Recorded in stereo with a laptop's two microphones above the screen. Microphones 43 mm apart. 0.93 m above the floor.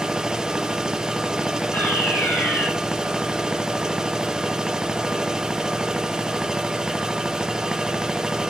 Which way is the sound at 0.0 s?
15° right (ahead or behind).